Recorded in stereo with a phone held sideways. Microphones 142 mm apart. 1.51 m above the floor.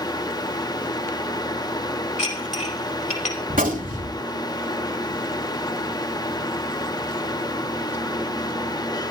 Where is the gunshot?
80° right, 3 m.